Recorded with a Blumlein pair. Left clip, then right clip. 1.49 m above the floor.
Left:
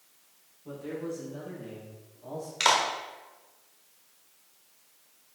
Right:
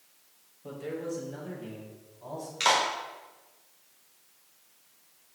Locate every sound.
0.6 s a man speaking: 40° right, 2.5 m; by 2.5 s 50° right, 4 m
2.6 s a clap: 15° left, 1.5 m